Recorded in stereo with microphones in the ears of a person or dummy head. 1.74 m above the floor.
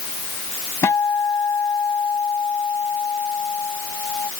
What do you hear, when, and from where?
0.8 s a guitar: 15° left (ahead or behind)